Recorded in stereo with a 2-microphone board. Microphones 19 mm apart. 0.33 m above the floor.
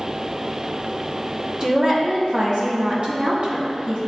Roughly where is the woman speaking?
Right.